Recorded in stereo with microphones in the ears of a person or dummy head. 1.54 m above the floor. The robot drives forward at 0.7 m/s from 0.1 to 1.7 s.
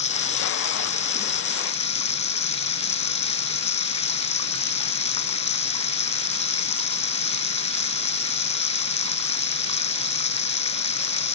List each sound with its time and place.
0.0 s running water: 30° left (ahead or behind)